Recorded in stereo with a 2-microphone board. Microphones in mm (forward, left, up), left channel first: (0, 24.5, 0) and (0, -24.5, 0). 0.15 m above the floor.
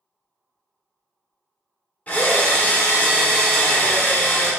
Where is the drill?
30° left (ahead or behind), 0.6 m.